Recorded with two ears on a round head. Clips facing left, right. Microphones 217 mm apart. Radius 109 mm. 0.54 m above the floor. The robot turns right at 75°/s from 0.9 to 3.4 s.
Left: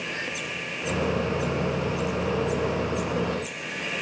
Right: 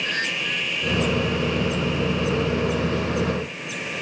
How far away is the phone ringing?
I don't hear a phone ringing.